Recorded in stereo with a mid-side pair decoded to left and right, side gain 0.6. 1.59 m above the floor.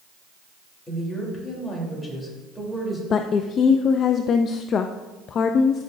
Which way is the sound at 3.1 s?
45° left.